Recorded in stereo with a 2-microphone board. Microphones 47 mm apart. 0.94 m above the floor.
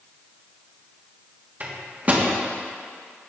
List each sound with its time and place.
1.6 s a microwave: 30° right (ahead or behind), 1.4 m